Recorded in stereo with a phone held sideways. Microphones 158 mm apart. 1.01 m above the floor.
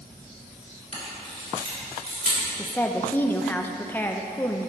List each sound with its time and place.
0.9 s a camera shutter: 60° right (ahead or behind), 3.5 m
2.6 s a woman speaking: 10° left (ahead or behind), 0.7 m